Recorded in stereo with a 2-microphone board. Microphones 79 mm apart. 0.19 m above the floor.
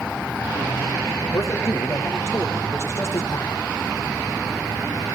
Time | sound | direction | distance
1.3 | a man speaking | 40° left (ahead or behind) | 9 m